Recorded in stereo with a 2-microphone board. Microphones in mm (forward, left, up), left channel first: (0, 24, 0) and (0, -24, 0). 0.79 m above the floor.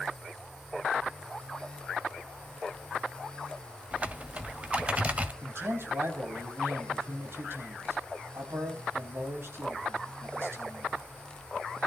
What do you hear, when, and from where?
3.9 s typing on a keyboard: 30° right (ahead or behind), 1.3 m
5.4 s a man speaking: 60° right (ahead or behind), 5 m